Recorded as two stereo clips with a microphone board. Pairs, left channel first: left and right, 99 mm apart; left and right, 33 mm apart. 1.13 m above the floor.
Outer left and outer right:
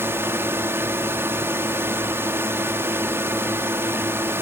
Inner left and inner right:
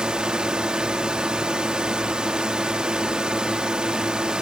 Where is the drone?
25° right (ahead or behind).